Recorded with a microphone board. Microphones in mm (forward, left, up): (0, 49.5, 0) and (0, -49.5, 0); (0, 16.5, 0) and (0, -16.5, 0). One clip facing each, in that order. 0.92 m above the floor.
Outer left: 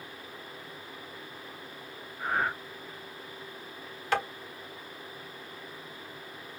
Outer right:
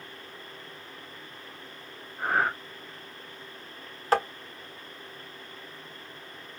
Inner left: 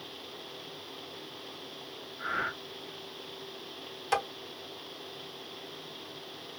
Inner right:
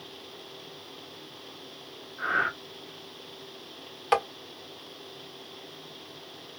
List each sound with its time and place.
2.2 s breathing: 85° right, 1.5 m
4.1 s tapping: 40° right (ahead or behind), 0.9 m